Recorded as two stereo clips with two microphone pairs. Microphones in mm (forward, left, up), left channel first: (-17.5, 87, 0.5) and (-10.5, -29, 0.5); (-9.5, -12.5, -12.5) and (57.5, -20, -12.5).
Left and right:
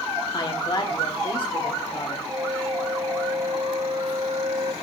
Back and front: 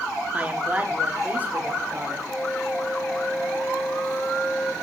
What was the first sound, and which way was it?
A woman speaking, 55° left.